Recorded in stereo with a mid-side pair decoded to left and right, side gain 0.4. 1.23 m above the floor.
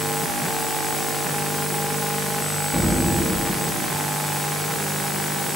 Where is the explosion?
Straight ahead, 1.2 m.